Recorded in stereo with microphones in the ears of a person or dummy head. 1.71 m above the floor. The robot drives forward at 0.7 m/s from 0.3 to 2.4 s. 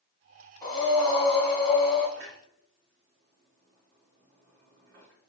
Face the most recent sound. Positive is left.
turn(degrees=-60)  # may be behind; listen again after turning